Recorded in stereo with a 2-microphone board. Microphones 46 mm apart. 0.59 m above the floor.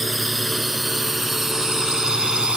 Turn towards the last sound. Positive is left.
turn(degrees=-20)  # may be behind; listen again after turning